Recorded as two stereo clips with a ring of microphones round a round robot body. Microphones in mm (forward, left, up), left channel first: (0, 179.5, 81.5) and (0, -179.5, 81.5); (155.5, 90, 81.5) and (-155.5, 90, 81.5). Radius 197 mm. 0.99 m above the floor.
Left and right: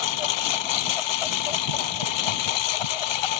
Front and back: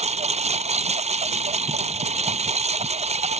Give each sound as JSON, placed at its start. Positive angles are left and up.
{"t": 0.0, "sound": "a lawn mower", "azimuth_deg": 110}